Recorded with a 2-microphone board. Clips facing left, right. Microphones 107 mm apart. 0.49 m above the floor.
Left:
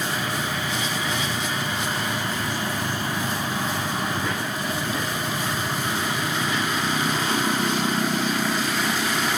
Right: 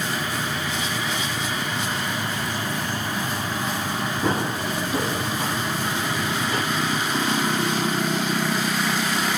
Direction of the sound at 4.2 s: 30° right (ahead or behind).